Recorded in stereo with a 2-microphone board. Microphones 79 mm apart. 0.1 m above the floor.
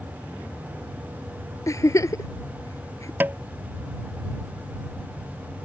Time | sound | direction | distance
1.7 | a giggle | 45° left (ahead or behind) | ?
3.2 | tapping | 25° right (ahead or behind) | ?